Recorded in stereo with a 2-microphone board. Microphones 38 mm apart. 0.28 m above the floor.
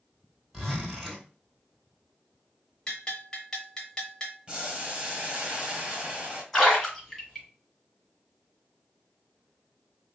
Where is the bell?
20° left (ahead or behind), 0.7 m.